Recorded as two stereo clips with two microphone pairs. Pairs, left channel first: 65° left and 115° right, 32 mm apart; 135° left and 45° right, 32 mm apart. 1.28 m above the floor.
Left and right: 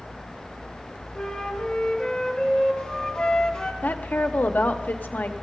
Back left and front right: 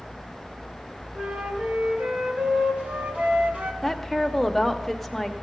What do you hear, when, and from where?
1.1 s a flute: 5° right, 1.2 m
3.8 s a woman speaking: 50° left, 0.8 m